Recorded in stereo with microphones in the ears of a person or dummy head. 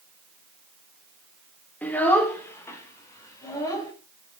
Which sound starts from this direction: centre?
A child speaking, at 1.8 s.